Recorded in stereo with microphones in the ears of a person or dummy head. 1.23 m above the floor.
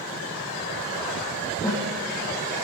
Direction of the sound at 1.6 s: 20° left (ahead or behind).